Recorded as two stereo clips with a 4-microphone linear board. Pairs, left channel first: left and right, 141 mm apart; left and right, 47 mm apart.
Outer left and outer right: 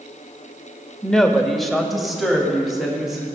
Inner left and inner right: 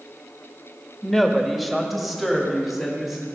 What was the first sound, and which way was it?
A woman speaking, 5° left (ahead or behind).